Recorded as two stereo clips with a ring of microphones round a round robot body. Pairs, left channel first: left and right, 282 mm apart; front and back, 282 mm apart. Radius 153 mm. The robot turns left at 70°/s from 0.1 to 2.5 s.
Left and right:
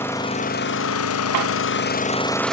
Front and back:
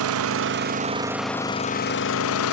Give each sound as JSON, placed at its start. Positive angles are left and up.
{"t": 0.0, "sound": "an engine running", "azimuth_deg": 170, "distance_m": 0.8}